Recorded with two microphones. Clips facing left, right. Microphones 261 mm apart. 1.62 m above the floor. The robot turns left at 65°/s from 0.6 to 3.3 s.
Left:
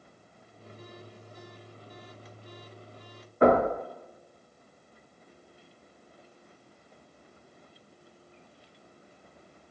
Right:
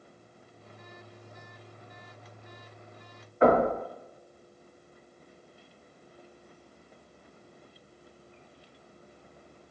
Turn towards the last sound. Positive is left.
turn(degrees=45)  # may be behind; listen again after turning